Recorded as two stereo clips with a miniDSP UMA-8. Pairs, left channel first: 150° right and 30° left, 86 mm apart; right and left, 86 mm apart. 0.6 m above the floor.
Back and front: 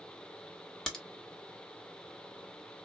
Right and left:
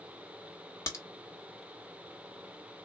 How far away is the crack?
About 1.2 m.